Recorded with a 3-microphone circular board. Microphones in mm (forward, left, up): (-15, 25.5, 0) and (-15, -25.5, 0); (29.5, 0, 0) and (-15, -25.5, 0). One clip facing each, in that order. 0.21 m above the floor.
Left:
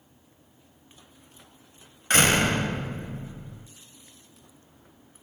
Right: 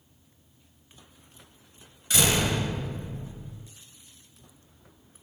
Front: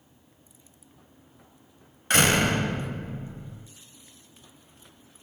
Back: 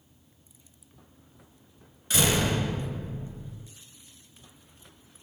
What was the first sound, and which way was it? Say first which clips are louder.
A door slam: left 4 dB, front 4 dB; 60° left.